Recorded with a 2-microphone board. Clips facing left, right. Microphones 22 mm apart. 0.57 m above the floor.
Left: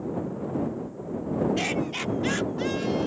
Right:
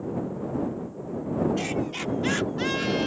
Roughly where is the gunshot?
No gunshot in this recording.